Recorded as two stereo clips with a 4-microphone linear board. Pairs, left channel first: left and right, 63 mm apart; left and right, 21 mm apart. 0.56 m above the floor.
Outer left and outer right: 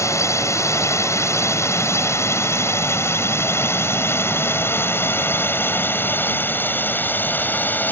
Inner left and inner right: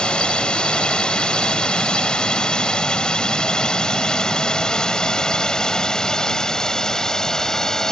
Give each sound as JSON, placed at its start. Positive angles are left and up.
{"t": 0.0, "sound": "a drone", "side_deg": 50}